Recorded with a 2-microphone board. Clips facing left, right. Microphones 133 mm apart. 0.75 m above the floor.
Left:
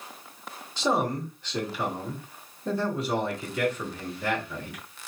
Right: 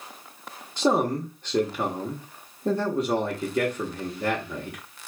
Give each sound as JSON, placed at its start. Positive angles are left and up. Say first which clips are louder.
{"t": 0.8, "sound": "a man speaking", "louder": "right 4 dB", "side_deg": -50, "distance_m": 1.1}